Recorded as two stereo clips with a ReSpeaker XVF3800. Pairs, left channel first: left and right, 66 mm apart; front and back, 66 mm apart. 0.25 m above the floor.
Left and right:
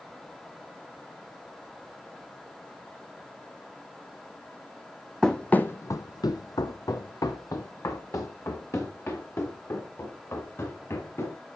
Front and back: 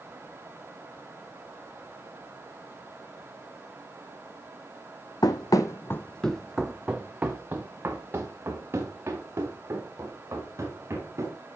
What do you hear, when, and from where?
5.2 s running footsteps: 5° left, 0.9 m; by 11.4 s 135° left, 5 m